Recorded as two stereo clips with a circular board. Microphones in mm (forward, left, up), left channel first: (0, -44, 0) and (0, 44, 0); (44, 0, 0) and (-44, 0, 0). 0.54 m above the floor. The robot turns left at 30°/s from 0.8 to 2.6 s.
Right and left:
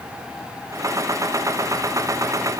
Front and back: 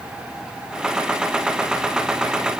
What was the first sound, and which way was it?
Only background noise.